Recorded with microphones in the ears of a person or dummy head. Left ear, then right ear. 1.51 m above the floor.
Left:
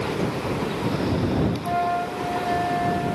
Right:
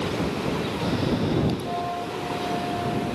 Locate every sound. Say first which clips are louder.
1.6 s a flute: left 5 dB; 75° left (ahead or behind)